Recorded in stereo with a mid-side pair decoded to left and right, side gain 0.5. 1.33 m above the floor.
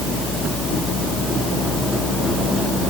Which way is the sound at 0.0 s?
65° left.